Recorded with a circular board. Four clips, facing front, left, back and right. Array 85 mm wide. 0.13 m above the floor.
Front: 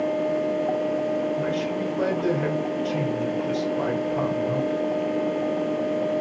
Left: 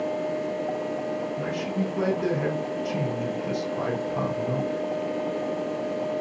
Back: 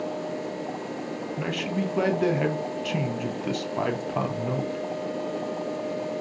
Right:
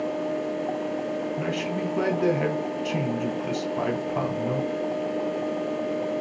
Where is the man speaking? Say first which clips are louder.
Even, front 3 dB; 155° right, 2.5 m.